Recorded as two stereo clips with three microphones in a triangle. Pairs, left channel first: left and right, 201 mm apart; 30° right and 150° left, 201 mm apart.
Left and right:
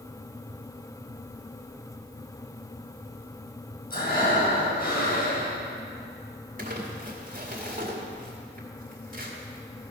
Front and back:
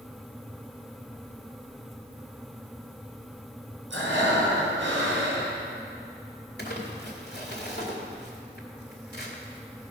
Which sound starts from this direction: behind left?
Breathing, at 3.9 s.